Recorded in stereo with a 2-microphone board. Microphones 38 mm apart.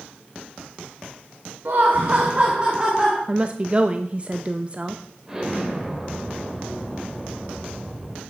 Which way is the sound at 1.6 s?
65° right (ahead or behind).